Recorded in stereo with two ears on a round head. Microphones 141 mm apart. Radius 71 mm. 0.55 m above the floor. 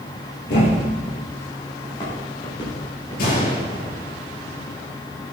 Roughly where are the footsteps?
Left.